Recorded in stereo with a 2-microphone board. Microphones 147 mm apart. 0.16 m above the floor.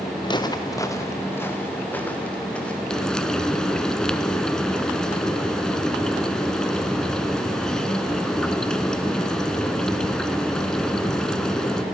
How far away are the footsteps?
About 1.6 m.